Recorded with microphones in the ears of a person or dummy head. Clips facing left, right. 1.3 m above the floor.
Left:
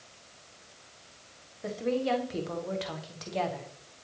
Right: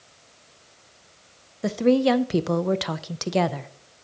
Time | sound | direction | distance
1.6 | a woman speaking | 70° right (ahead or behind) | 0.7 m